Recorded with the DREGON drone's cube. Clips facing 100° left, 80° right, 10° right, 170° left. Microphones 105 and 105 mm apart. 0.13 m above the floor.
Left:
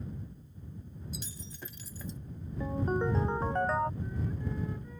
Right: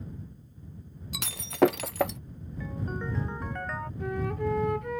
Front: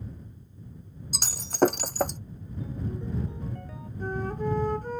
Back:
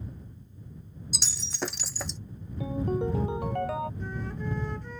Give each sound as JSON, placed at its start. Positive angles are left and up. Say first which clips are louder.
{"t": 1.1, "sound": "breaking glass", "louder": "right 21 dB, front 11 dB", "azimuth_deg": -55}
{"t": 2.6, "sound": "a ringtone", "louder": "left 5 dB, back 8 dB", "azimuth_deg": 160}
{"t": 4.0, "sound": "a flute", "louder": "right 7 dB, front 6 dB", "azimuth_deg": -60}